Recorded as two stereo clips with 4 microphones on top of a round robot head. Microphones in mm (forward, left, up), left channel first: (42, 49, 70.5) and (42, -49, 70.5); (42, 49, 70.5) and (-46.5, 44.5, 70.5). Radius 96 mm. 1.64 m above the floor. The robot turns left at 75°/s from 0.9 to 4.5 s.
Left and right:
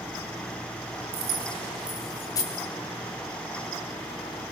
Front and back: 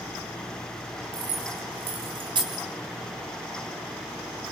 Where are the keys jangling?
115° right, 3.5 m; by 2.6 s 130° left, 3.5 m.